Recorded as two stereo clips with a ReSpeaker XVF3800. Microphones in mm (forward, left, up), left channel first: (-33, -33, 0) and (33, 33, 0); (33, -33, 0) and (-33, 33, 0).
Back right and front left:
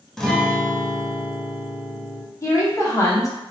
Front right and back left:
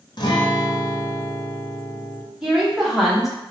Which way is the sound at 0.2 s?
50° right.